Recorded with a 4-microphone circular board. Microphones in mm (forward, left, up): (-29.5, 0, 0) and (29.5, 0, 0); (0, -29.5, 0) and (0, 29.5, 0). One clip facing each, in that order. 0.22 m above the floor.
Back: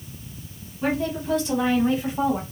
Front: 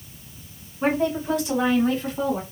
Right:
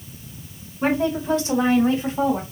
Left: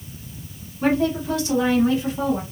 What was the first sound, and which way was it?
A woman speaking, 40° right.